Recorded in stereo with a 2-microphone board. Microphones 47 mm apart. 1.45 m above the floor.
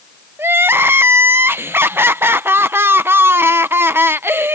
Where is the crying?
50° right (ahead or behind).